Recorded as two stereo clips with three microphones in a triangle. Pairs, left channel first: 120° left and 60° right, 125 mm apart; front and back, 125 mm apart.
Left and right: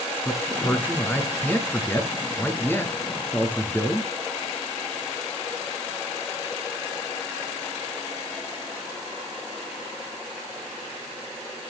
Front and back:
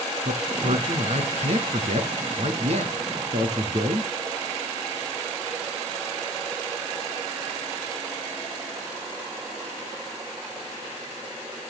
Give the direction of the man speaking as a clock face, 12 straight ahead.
6 o'clock.